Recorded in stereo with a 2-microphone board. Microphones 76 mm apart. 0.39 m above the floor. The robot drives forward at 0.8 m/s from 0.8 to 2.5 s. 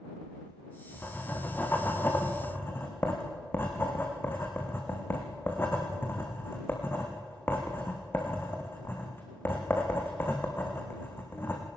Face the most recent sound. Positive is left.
turn(degrees=30)  # may be behind; listen again after turning